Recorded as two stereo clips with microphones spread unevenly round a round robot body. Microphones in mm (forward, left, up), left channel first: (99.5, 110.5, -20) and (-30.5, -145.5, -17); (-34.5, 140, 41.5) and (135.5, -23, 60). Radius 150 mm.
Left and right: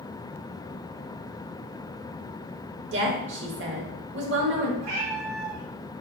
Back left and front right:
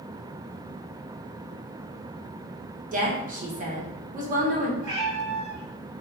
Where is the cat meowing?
100° right, 2.5 m.